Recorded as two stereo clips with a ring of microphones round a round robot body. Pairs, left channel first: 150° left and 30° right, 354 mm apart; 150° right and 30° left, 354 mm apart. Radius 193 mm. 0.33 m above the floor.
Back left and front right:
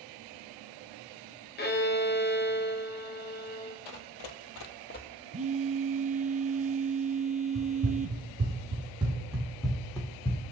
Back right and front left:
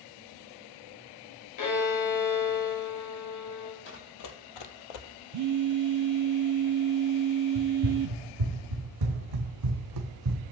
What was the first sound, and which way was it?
A violin, 155° right.